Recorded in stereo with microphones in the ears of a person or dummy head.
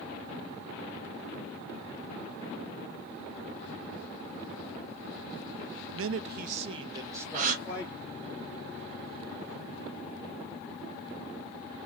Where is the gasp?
40° right (ahead or behind), 0.8 m.